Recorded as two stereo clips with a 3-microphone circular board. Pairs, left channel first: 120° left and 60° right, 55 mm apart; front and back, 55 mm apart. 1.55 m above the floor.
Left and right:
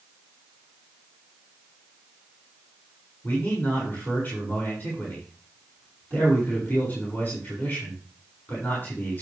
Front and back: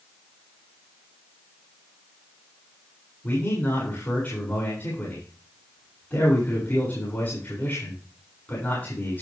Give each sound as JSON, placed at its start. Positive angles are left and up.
{"t": 3.2, "sound": "a man speaking", "azimuth_deg": 60, "distance_m": 7.0}